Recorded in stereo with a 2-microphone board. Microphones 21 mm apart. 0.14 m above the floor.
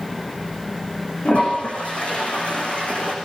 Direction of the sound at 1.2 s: 80° left.